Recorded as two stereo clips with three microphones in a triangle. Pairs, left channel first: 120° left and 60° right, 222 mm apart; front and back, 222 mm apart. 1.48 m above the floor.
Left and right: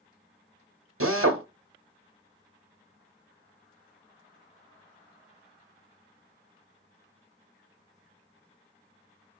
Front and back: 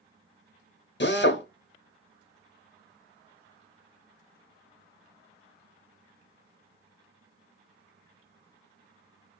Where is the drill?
40° right, 0.9 m.